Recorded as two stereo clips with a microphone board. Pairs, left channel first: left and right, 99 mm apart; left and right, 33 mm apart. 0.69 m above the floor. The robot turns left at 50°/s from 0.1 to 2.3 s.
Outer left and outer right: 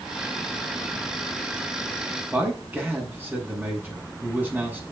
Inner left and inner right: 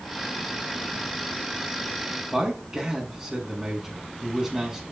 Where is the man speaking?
10° right (ahead or behind), 5.5 m.